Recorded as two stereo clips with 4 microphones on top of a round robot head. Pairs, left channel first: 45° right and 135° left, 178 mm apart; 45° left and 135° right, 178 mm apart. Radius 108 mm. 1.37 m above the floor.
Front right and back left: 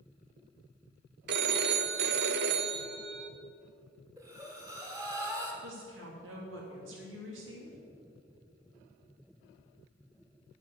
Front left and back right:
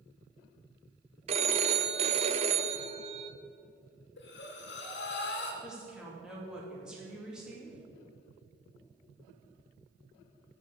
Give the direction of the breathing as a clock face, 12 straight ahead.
10 o'clock.